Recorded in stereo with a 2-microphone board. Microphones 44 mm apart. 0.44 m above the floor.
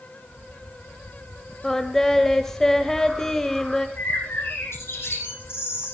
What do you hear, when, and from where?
1.6 s singing: 10° left (ahead or behind), 1.8 m
4.0 s a bird: 65° left (ahead or behind), 10 m